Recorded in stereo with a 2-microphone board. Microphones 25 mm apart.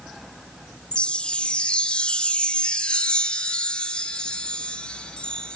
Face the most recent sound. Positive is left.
turn(degrees=45)  # may be behind; listen again after turning